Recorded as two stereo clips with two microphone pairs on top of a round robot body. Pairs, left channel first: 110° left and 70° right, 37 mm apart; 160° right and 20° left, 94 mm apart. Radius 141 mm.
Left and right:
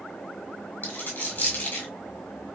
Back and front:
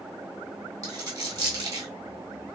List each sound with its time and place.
0.8 s a dropped coin: 75° left, 1.4 m